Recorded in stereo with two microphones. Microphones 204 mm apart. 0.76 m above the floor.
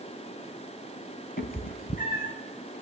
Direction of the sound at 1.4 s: 45° left (ahead or behind).